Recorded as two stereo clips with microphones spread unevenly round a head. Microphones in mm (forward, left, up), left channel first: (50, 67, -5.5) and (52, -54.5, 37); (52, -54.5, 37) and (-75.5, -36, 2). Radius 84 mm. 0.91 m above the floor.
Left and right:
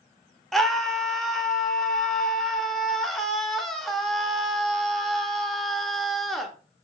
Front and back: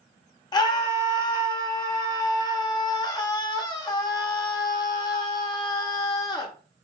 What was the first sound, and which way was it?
A scream, 50° left.